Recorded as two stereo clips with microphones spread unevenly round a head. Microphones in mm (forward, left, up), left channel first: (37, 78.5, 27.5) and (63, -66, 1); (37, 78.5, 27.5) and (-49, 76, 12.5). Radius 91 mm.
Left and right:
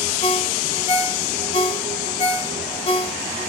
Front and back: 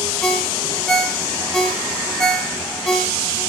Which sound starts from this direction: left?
A ringtone, at 0.2 s.